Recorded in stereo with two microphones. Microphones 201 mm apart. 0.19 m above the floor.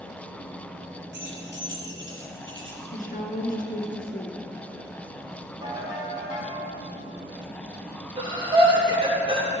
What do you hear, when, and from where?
1.1 s keys jangling: 65° right (ahead or behind), 2.5 m; by 2.8 s 75° right (ahead or behind), 3.5 m
2.9 s a woman speaking: 45° left (ahead or behind), 2.5 m
5.6 s a ringtone: 25° right (ahead or behind), 5 m
8.2 s breathing: 25° right (ahead or behind), 3.5 m